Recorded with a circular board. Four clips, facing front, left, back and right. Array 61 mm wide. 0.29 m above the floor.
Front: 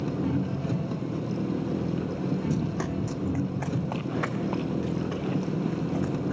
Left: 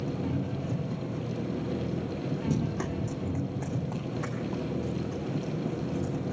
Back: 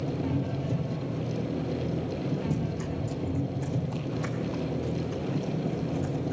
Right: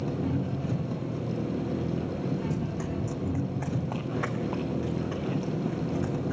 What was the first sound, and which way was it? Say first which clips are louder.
An engine running: right 2 dB, front 2 dB; 15° right.